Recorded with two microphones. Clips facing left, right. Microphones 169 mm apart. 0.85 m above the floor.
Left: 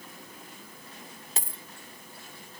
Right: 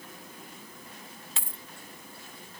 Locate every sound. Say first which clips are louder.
1.4 s a dropped coin: left 5 dB; 40° left (ahead or behind)